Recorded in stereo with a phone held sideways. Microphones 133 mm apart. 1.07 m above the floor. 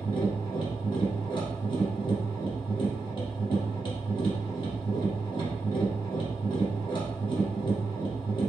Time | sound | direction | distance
0.0 | a machine running | 35° left (ahead or behind) | 1.2 m